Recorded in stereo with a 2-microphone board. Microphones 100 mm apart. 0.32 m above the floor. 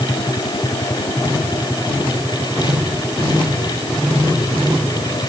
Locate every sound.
Only background noise.